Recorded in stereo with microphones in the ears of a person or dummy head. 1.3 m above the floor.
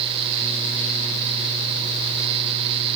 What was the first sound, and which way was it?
Only background noise.